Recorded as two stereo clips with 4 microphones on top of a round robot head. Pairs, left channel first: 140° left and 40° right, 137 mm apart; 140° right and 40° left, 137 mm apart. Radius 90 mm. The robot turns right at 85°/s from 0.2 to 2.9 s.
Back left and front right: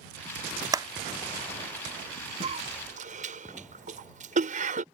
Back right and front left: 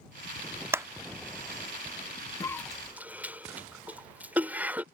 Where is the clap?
15° right; by 0.9 s 5° right.